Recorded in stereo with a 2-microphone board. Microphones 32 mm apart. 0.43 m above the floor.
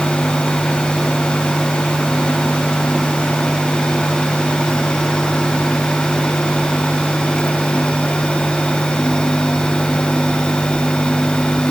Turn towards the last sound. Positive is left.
No sound to turn to.